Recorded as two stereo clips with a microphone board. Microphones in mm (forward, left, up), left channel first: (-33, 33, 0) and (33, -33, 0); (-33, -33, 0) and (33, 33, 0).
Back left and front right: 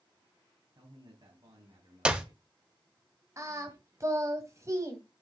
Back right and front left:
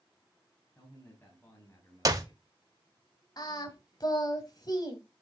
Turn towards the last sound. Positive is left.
turn(degrees=-100)